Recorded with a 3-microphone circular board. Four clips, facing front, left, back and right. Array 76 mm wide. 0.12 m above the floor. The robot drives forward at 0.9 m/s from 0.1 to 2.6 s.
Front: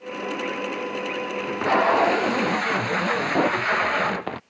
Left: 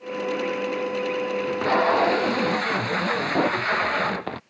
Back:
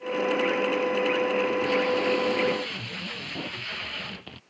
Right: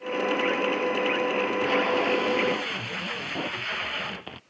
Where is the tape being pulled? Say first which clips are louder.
Left 3 dB, front 3 dB; 30° left; by 4.4 s 35° left.